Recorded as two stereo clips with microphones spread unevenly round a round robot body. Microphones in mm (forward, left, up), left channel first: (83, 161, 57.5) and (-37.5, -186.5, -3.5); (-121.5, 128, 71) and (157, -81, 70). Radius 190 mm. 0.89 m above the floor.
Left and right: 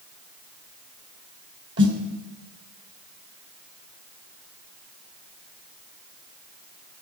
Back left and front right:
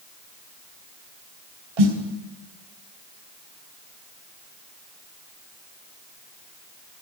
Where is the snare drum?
50° right, 3.5 m.